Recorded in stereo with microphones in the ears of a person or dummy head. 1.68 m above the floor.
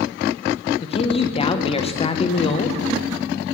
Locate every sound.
0.8 s a man speaking: 25° left (ahead or behind), 0.7 m